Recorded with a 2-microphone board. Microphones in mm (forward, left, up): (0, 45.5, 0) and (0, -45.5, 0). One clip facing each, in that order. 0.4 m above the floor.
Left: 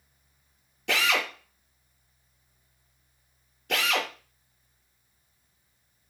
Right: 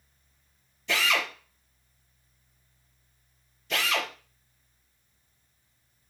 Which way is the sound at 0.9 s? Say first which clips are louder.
Left 1 dB; 75° left (ahead or behind).